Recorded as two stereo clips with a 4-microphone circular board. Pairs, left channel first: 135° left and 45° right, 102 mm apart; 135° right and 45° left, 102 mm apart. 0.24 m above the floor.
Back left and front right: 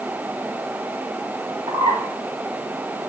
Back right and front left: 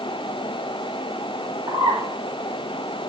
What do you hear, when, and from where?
1.7 s a bird: straight ahead, 5.5 m